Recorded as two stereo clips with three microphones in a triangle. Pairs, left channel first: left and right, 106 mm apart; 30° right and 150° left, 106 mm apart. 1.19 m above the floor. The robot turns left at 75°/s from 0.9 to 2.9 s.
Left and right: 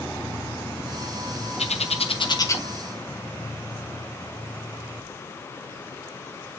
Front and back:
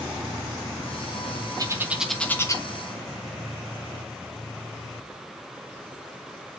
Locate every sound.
1.6 s a bird: 95° left, 1.1 m; by 2.6 s 20° left, 1.1 m